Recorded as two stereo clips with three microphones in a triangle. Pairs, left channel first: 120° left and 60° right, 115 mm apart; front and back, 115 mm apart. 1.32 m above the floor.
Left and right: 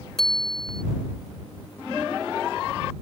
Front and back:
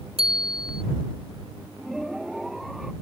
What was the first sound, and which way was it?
A bicycle bell, 155° right.